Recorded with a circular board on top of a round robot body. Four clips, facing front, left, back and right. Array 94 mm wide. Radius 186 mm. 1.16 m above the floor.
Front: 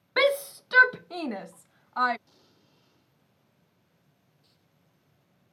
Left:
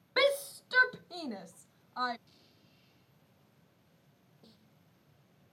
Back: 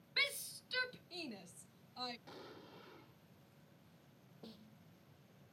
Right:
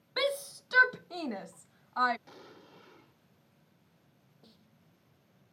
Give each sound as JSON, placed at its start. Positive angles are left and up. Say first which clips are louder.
{"t": 0.2, "sound": "a shout", "louder": "left 4 dB, front 22 dB", "azimuth_deg": 10}
{"t": 2.3, "sound": "an explosion", "louder": "right 13 dB, back 9 dB", "azimuth_deg": -115}
{"t": 4.4, "sound": "a snare drum", "louder": "even, back 12 dB", "azimuth_deg": 180}